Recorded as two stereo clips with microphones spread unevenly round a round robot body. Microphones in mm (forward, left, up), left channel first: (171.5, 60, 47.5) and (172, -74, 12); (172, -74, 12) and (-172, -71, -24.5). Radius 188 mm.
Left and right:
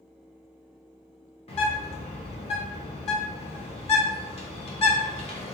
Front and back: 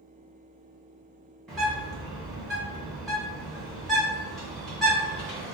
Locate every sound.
1.5 s a bird: 100° left, 0.7 m